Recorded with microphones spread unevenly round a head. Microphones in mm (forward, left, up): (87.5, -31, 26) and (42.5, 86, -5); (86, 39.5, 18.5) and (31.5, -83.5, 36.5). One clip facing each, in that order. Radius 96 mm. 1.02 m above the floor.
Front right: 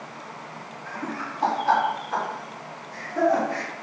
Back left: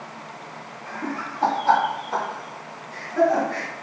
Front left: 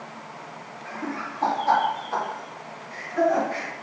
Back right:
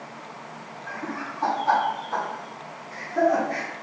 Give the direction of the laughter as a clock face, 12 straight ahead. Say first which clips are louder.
Back left 2 dB, front left 1 dB; 9 o'clock.